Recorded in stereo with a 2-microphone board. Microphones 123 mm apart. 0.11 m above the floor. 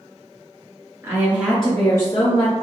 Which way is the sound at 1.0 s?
25° right (ahead or behind).